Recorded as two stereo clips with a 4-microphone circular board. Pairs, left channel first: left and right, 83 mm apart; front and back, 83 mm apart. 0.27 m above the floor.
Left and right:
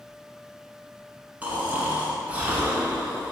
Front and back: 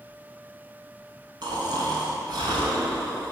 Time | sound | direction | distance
1.4 | snoring | 160° right | 0.6 m